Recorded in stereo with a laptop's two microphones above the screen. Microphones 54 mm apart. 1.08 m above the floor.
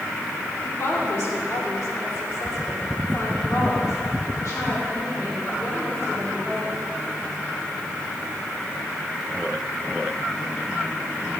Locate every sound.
0.6 s a woman speaking: 50° left (ahead or behind), 3 m; by 6.8 s 65° left (ahead or behind), 5 m